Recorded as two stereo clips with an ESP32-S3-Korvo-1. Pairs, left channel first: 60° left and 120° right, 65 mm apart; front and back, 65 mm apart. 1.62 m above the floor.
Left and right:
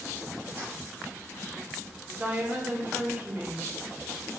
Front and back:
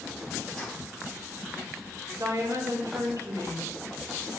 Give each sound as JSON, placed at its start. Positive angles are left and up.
{"t": 0.6, "sound": "keys jangling", "azimuth_deg": -75, "distance_m": 2.5}
{"t": 2.2, "sound": "a woman speaking", "azimuth_deg": -175, "distance_m": 2.0}